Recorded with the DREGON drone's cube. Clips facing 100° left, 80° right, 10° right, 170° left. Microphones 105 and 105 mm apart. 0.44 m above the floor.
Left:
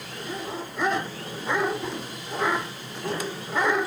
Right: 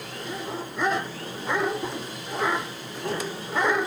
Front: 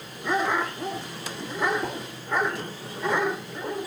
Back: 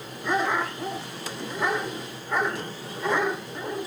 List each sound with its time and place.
1.8 s a whoosh: straight ahead, 1.6 m